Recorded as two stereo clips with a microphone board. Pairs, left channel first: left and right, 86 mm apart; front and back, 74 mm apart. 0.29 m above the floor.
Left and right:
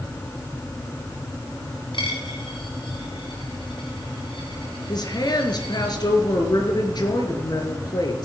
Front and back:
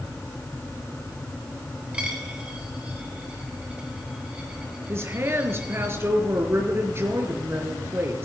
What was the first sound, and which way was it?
A dropped coin, 105° left.